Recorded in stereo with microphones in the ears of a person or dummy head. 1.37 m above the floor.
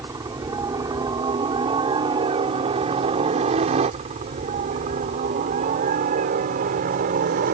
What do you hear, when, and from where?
0.0 s a helicopter: 20° right (ahead or behind); by 7.5 s 50° right (ahead or behind)